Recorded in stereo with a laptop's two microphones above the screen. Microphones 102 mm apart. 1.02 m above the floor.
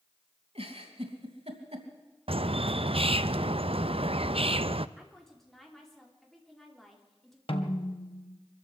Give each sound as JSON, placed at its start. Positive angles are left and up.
{"t": 0.6, "sound": "a giggle", "side_deg": -75, "distance_m": 2.5}
{"t": 2.3, "sound": "a bird", "side_deg": -70, "distance_m": 0.5}
{"t": 5.0, "sound": "a woman speaking", "side_deg": 5, "distance_m": 3.0}
{"t": 7.5, "sound": "a snare drum", "side_deg": 65, "distance_m": 2.0}